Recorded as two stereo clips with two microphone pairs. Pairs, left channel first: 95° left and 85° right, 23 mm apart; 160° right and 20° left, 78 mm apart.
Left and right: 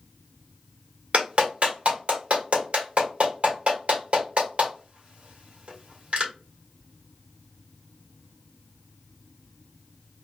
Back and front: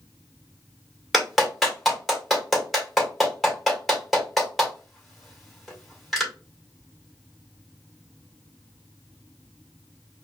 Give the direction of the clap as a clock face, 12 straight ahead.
2 o'clock.